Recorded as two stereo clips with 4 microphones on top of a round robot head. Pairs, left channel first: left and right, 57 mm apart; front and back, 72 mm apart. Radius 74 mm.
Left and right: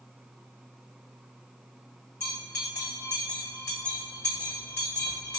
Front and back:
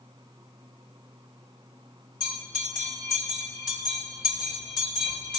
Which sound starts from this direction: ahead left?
A bell, at 2.2 s.